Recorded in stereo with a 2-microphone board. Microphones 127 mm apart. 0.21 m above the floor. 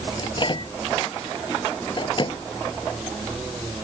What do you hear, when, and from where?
0.2 s a microwave: 40° left (ahead or behind)